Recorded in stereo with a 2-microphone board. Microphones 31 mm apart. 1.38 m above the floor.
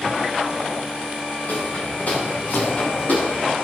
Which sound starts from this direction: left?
Footsteps, at 1.5 s.